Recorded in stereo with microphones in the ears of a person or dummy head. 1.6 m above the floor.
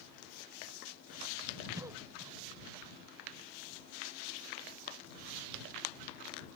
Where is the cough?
15° right (ahead or behind).